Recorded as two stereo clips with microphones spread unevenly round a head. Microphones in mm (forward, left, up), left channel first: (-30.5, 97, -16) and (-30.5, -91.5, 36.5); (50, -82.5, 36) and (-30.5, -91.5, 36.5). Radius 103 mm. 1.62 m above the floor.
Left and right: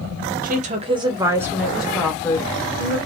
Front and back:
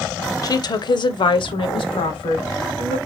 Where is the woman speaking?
35° right, 0.9 m; by 3.0 s 15° left, 1.7 m.